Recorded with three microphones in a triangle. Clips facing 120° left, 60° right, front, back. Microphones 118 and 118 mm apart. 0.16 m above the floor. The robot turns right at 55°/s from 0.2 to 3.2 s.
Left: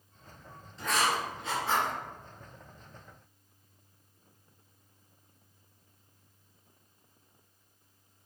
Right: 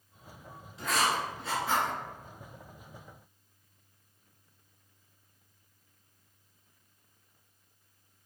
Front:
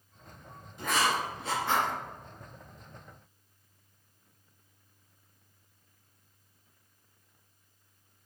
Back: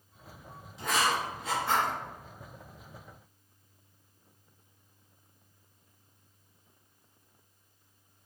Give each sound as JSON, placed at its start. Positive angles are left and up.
{"t": 0.8, "sound": "writing", "azimuth_deg": 15, "distance_m": 2.0}